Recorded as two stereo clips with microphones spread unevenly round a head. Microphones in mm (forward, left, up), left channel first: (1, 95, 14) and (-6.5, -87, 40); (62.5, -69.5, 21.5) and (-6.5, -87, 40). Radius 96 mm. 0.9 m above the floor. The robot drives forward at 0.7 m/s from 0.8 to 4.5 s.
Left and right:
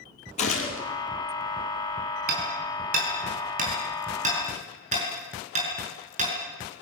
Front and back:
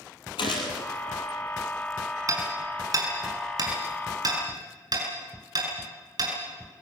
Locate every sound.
0.4 s a gunshot: 35° left, 4 m
2.3 s hammering: 135° right, 5 m; by 6.3 s 145° right, 6 m